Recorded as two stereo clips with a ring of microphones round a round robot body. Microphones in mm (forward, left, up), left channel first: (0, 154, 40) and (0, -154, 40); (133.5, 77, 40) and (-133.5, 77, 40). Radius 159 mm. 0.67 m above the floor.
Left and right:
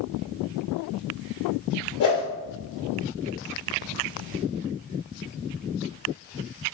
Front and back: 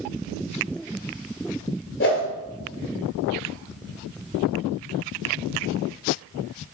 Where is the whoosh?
45° left, 2.5 m.